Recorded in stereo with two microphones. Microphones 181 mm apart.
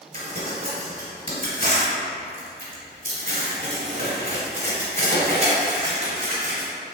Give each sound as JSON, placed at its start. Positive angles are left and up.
{"t": 0.1, "sound": "crumpling", "side_deg": -45, "distance_m": 1.7}